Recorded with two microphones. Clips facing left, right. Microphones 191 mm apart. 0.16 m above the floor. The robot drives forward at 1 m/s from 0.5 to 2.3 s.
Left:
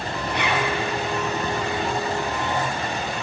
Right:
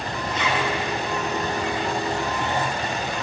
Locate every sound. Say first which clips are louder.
0.3 s a zipper: left 1 dB; 65° left (ahead or behind), 4 m